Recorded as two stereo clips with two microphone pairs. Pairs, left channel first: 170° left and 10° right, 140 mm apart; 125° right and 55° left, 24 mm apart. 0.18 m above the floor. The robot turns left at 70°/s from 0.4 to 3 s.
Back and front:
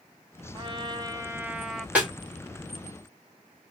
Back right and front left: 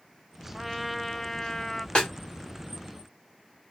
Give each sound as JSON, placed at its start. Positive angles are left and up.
{"t": 0.5, "sound": "a trumpet", "azimuth_deg": -15, "distance_m": 0.6}
{"t": 1.9, "sound": "a snare drum", "azimuth_deg": -90, "distance_m": 1.8}